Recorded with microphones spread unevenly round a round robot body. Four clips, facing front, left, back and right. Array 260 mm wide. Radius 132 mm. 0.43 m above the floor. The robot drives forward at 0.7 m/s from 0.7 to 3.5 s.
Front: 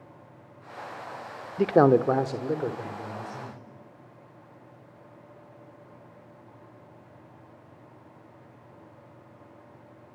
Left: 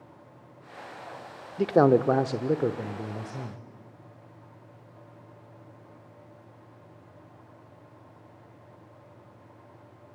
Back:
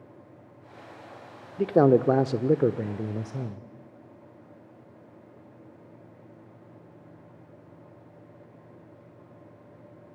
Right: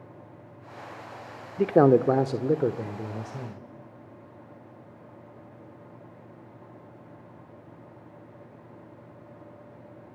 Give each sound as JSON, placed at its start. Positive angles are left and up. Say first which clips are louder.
{"t": 1.6, "sound": "a man speaking", "louder": "right 2 dB, even", "azimuth_deg": -55, "distance_m": 0.7}